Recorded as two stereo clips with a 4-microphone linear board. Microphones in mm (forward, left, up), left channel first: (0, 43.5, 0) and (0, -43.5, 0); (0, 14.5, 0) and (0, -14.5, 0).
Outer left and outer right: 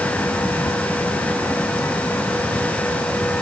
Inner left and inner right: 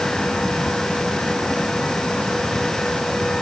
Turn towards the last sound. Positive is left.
No sound to turn to.